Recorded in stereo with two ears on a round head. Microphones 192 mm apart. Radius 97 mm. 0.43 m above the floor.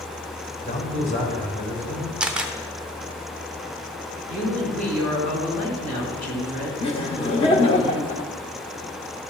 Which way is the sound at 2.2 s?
5° right (ahead or behind).